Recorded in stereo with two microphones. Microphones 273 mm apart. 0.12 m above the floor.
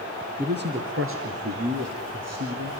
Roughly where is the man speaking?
Right.